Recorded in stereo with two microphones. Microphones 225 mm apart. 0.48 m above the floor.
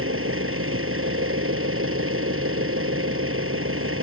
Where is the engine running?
70° right (ahead or behind).